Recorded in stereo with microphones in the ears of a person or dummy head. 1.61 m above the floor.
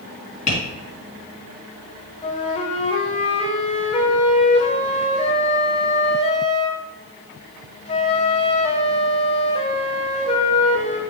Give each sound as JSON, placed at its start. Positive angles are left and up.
{"t": 0.5, "sound": "tapping", "side_deg": 40, "distance_m": 3.0}
{"t": 2.2, "sound": "a flute", "side_deg": 30, "distance_m": 0.9}